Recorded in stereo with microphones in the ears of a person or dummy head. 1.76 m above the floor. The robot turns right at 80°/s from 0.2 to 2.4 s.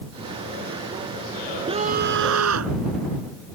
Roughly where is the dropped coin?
No dropped coin in this recording.